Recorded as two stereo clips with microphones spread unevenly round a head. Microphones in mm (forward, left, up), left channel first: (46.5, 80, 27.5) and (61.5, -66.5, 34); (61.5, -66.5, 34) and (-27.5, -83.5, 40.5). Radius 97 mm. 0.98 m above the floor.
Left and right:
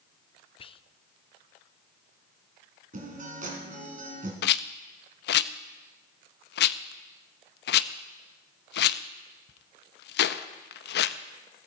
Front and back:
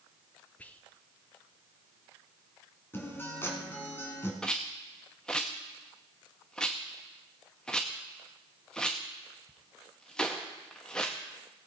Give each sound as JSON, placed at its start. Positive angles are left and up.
{"t": 0.6, "sound": "whispering", "azimuth_deg": 75, "distance_m": 0.6}
{"t": 2.9, "sound": "a guitar", "azimuth_deg": -55, "distance_m": 3.0}
{"t": 4.4, "sound": "a rattle", "azimuth_deg": 95, "distance_m": 0.6}